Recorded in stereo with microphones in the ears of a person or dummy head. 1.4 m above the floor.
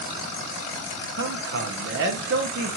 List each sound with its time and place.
1.2 s a man speaking: 65° right (ahead or behind), 0.7 m